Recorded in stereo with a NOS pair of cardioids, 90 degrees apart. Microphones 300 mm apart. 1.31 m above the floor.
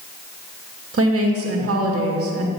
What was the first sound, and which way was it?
A woman speaking, 50° right.